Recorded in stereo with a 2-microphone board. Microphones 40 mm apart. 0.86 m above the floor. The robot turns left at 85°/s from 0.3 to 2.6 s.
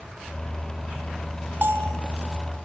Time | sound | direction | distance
1.6 | a bell | 70° right | 1.6 m